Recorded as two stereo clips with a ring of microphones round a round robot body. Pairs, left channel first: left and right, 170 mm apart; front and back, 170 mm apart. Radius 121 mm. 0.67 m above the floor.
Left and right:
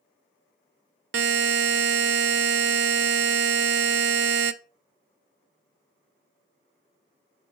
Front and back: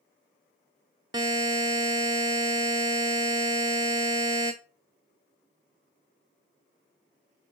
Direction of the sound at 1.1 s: 105° right.